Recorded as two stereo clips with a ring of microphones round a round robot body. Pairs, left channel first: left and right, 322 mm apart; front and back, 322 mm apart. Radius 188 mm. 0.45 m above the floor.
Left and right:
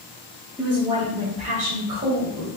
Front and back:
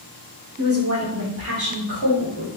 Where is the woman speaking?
175° right, 1.3 m; by 2.6 s 140° right, 2 m.